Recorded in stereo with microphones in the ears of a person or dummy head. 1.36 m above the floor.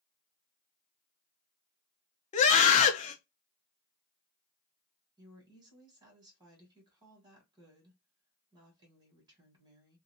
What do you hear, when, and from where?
2.3 s a scream: 40° left (ahead or behind), 0.6 m
5.2 s a woman speaking: 25° right (ahead or behind), 1.3 m